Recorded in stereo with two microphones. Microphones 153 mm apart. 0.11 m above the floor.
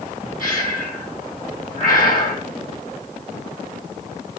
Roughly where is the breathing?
Left.